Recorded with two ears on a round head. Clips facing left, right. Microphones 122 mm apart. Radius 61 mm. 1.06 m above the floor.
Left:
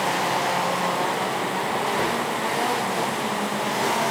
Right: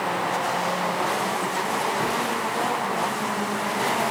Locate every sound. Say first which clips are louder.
1.9 s a cupboard door: left 1 dB; 70° left (ahead or behind), 4 m